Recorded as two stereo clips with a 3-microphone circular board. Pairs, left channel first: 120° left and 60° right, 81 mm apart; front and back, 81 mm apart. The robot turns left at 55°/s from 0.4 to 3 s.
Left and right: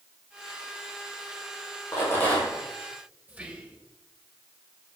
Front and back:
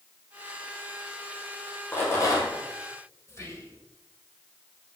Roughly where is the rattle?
Ahead left.